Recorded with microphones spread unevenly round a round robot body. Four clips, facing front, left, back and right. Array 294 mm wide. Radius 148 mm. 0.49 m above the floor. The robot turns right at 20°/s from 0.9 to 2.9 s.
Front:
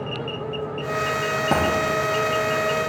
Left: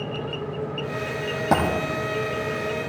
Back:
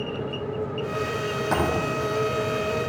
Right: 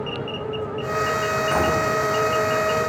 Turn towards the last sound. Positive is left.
turn(degrees=80)